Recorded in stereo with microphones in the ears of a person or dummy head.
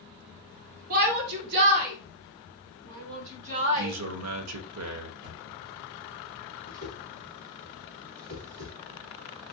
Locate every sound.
0.9 s a shout: 50° right (ahead or behind), 1.1 m; by 3.9 s 65° right (ahead or behind), 3.5 m
3.8 s a man speaking: 75° right (ahead or behind), 1.0 m
5.2 s a thud: 40° right (ahead or behind), 2.5 m
6.7 s a whoosh: 80° right, 2.5 m